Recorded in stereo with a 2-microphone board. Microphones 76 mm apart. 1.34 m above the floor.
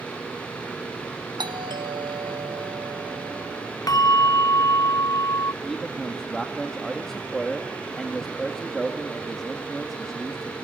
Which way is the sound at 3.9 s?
55° left (ahead or behind).